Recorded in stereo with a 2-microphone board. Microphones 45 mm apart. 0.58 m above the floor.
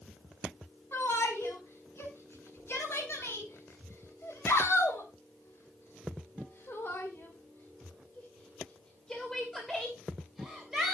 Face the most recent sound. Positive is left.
turn(degrees=-10)  # may be behind; listen again after turning